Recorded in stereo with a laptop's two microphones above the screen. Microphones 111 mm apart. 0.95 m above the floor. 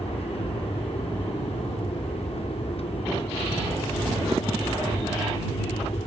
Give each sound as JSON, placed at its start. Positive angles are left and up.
{"t": 0.0, "sound": "an aircraft", "side_deg": 60}